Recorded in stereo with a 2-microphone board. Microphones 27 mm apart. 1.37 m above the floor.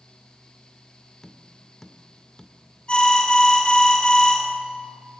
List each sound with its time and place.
1.2 s tapping: 25° left (ahead or behind), 1.7 m
2.9 s an alarm: 45° left (ahead or behind), 7 m